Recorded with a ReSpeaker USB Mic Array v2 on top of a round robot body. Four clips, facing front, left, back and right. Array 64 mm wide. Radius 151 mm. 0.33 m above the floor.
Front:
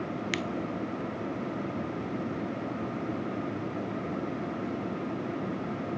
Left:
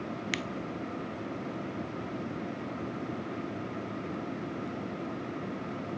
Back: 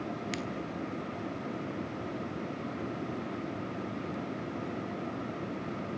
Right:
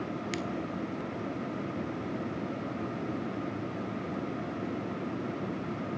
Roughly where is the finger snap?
Ahead left.